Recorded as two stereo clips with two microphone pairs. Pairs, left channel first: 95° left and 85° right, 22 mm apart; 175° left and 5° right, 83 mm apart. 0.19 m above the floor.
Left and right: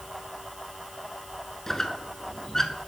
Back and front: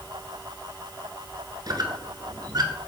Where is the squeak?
25° left, 0.9 m.